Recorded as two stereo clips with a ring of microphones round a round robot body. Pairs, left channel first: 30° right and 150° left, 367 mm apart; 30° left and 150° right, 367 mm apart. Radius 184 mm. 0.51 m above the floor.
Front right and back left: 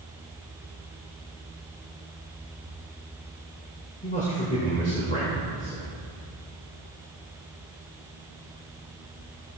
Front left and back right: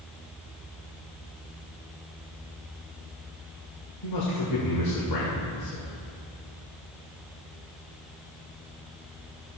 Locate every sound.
4.0 s a man speaking: 35° left, 2 m